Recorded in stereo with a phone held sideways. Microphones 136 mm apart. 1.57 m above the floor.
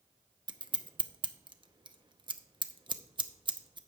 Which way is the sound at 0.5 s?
35° right (ahead or behind).